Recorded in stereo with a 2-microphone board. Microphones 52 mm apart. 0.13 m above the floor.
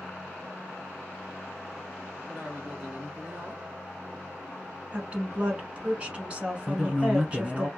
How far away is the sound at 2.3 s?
About 1.3 m.